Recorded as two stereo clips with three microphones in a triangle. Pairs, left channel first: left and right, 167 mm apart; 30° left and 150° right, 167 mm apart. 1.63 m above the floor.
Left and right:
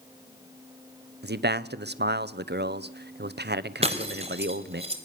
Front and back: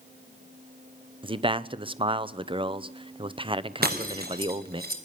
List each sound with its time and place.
1.2 s a man speaking: 90° right, 0.9 m
3.8 s breaking glass: 140° right, 3.5 m